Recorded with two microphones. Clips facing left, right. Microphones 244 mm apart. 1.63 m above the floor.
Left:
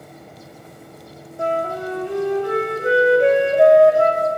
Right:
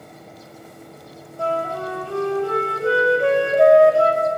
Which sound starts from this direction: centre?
A flute, at 1.4 s.